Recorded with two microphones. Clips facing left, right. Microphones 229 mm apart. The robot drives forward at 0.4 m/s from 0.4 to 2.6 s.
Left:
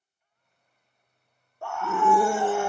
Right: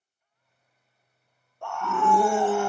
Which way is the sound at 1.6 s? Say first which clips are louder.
Left 1 dB; 5° left (ahead or behind).